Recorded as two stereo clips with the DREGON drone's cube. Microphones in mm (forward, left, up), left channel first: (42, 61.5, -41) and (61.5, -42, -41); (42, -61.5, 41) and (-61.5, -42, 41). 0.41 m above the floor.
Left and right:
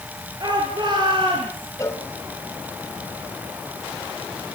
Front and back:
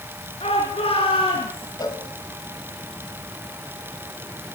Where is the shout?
30° right, 7 m; by 1.7 s 40° right, 7 m.